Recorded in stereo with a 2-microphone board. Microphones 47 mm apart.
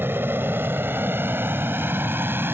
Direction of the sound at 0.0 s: 55° right (ahead or behind).